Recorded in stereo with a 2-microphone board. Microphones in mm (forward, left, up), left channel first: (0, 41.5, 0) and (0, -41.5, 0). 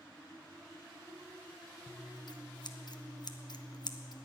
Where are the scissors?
55° left (ahead or behind), 0.8 m.